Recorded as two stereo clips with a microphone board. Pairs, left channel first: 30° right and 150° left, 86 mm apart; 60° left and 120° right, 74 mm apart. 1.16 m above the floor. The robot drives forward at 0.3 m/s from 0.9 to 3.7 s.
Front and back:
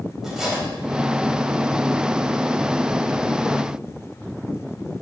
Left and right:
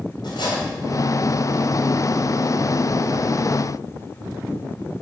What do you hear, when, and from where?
0.2 s cutlery clinking: 65° left, 3.5 m